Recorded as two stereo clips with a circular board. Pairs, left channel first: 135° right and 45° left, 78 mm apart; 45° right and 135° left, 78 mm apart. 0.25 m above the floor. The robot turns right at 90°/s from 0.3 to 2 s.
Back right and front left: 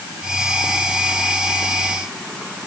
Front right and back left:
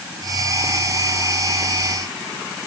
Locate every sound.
Only background noise.